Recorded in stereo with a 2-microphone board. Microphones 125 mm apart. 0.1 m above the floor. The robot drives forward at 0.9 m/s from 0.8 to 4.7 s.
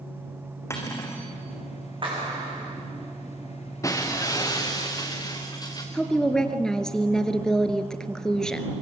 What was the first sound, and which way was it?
Cutlery clinking, 20° left (ahead or behind).